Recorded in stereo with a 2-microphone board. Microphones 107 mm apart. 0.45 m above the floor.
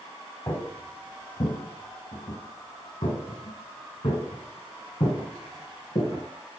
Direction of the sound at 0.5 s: 35° left (ahead or behind).